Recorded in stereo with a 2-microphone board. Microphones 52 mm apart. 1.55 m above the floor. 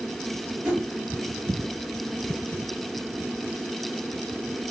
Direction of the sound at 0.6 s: 40° right (ahead or behind).